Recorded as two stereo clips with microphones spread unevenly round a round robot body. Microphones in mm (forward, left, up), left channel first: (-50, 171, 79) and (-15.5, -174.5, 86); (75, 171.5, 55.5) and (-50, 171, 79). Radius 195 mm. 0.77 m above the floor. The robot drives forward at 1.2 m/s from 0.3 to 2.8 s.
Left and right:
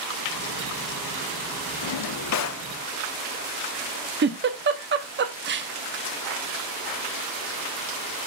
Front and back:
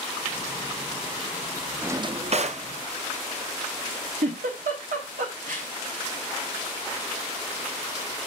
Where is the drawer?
95° left, 0.7 m; by 2.7 s 150° left, 1.3 m.